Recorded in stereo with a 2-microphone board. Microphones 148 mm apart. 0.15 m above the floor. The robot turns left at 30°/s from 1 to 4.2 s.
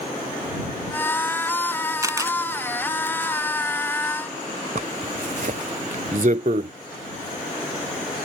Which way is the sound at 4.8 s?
65° right (ahead or behind).